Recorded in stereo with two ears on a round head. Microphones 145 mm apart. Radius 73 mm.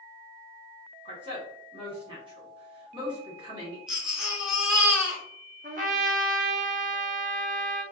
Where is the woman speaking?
30° right (ahead or behind), 1.4 m.